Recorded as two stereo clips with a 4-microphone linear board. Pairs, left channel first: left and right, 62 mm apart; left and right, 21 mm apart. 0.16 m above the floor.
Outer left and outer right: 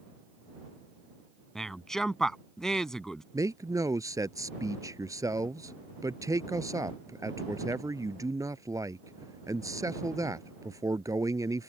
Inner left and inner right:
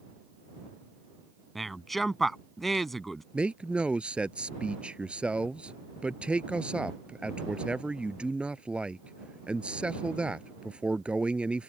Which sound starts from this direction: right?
A man speaking, at 3.3 s.